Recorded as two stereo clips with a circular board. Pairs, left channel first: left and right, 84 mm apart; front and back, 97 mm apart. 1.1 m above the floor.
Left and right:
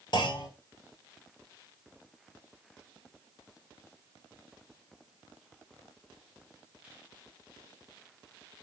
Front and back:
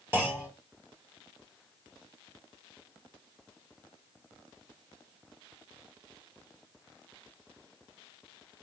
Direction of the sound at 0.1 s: 110° left.